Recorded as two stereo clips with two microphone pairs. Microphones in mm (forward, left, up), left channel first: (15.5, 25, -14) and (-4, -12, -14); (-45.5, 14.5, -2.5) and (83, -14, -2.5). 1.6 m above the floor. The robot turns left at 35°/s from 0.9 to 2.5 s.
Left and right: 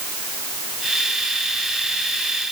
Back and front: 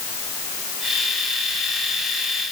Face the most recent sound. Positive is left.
No sound to turn to.